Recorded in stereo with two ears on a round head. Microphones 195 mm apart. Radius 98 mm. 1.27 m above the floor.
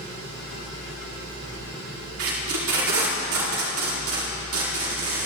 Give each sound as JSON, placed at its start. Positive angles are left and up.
{"t": 2.2, "sound": "tape being pulled", "side_deg": -70, "distance_m": 3.0}